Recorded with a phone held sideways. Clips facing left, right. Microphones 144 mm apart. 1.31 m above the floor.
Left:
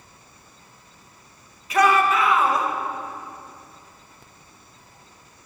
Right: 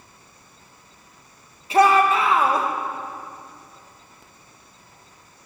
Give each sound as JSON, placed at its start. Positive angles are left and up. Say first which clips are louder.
{"t": 1.7, "sound": "a shout", "louder": "right 2 dB", "side_deg": -30, "distance_m": 1.8}